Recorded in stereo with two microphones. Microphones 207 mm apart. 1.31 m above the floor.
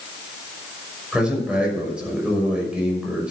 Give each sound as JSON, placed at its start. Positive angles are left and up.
{"t": 1.1, "sound": "a man speaking", "side_deg": -5, "distance_m": 5.5}